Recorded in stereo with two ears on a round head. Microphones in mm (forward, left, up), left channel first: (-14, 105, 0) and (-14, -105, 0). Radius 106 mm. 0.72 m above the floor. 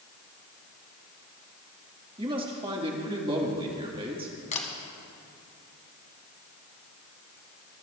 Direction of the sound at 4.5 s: 30° left (ahead or behind).